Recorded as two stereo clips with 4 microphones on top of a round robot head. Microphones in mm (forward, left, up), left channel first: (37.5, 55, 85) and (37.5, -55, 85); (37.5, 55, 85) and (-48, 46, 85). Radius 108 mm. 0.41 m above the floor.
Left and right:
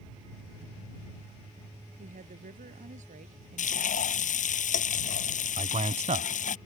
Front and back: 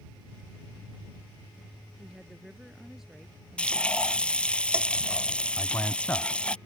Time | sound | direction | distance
2.0 | a woman speaking | 90° right | ?
3.6 | frying | 85° left | ?
5.6 | a man speaking | 65° right | ?